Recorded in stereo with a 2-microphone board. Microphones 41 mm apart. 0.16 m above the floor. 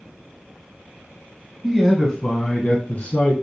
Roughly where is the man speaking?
Centre.